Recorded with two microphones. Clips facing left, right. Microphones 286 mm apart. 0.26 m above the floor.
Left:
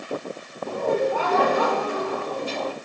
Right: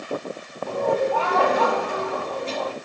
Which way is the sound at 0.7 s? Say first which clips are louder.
Even; 15° left (ahead or behind).